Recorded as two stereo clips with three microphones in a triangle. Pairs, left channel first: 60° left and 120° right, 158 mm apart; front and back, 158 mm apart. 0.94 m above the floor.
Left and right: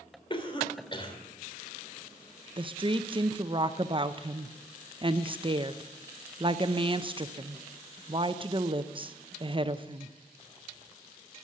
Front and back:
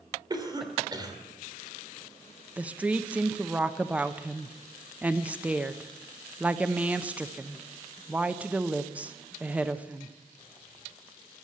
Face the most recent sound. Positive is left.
turn(degrees=-105)